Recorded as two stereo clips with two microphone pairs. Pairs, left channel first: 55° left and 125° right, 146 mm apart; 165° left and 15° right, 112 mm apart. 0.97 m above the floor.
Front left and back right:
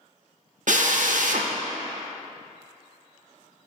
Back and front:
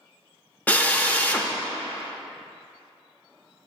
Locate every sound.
0.7 s a drill: 120° right, 0.6 m